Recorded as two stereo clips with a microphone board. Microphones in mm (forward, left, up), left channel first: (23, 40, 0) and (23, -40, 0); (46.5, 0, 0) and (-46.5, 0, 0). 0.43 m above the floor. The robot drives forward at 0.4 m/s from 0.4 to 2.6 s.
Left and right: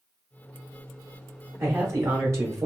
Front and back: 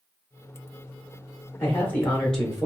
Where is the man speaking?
50° right, 1.0 m; by 2.7 s 90° right, 0.9 m.